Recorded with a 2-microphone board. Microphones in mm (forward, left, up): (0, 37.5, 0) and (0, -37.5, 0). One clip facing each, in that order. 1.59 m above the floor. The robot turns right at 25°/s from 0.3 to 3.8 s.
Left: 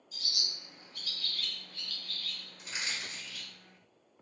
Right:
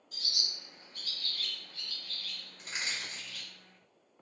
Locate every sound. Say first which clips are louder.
0.1 s a bird: even; 65° right (ahead or behind), 2 m; by 3.5 s 10° left (ahead or behind), 2 m
2.6 s crushing: right 1 dB; 50° right (ahead or behind), 1.9 m; by 3.5 s 40° right (ahead or behind), 1.9 m